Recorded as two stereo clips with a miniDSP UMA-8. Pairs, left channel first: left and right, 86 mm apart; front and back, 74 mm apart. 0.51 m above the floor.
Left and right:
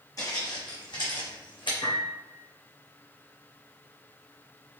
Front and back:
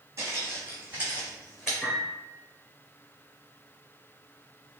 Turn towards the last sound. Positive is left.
turn(degrees=80)